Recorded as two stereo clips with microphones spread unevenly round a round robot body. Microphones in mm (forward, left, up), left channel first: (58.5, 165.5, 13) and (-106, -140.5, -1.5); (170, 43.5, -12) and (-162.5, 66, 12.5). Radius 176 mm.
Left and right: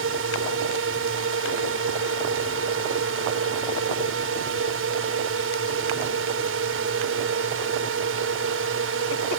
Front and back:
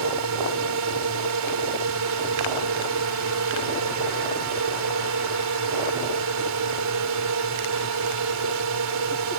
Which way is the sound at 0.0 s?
160° right.